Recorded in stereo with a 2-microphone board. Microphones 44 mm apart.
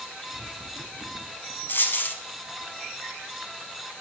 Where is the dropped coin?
55° left (ahead or behind), 0.9 m.